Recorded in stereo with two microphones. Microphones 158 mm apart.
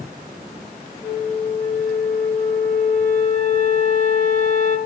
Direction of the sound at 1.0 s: 60° left (ahead or behind).